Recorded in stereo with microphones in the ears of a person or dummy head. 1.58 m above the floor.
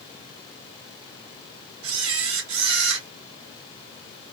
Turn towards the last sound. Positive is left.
turn(degrees=-80)